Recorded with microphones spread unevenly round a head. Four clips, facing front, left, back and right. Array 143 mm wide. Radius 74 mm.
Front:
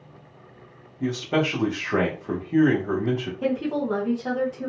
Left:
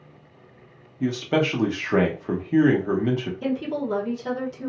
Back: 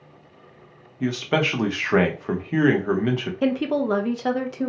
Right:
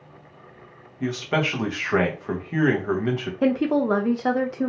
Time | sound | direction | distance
1.0 | a man speaking | 140° left | 0.7 m
3.4 | a woman speaking | 120° right | 0.6 m